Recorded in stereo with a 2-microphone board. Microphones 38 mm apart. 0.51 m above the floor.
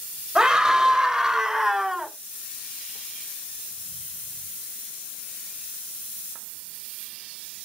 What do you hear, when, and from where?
0.3 s a scream: 20° right (ahead or behind), 2.5 m; by 2.1 s 10° right (ahead or behind), 1.5 m